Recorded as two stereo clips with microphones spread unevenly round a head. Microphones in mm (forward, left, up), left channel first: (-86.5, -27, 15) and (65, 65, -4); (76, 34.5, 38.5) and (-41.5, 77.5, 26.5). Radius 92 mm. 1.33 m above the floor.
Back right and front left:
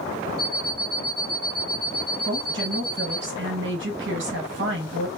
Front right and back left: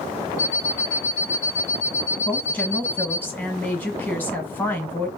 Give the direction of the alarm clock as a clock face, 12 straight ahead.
1 o'clock.